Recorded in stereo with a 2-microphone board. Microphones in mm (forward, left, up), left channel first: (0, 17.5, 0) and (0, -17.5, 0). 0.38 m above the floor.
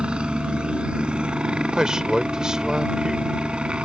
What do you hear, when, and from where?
0.0 s a helicopter: 30° right (ahead or behind)
1.7 s a man speaking: 20° right (ahead or behind)